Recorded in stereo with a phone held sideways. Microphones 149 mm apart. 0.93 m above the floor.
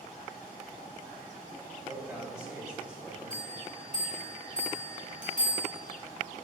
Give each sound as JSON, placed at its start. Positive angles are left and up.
{"t": 1.9, "sound": "a man speaking", "side_deg": -10, "distance_m": 3.5}
{"t": 3.3, "sound": "a bell", "side_deg": -70, "distance_m": 2.5}